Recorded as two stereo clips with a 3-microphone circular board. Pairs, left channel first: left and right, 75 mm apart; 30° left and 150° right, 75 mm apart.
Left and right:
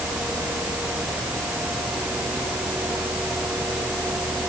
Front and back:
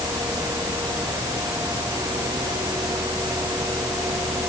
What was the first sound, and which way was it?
Only background noise.